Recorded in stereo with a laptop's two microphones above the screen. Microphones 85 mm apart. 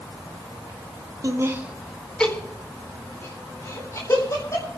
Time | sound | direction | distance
1.2 | laughter | 40° right (ahead or behind) | 1.1 m